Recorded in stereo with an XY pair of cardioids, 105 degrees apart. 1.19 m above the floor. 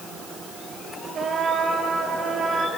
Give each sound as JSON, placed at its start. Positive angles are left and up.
{"t": 1.1, "sound": "a trumpet", "azimuth_deg": -50, "distance_m": 3.0}